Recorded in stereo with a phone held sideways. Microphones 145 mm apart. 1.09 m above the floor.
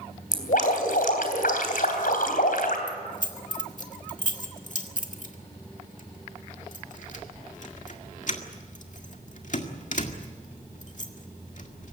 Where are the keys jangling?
60° left (ahead or behind), 1.8 m.